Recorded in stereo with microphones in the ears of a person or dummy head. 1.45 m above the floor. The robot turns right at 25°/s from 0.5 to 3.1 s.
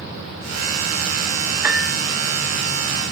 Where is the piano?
5° right (ahead or behind), 0.5 m; by 2.0 s centre (ahead or behind), 0.5 m.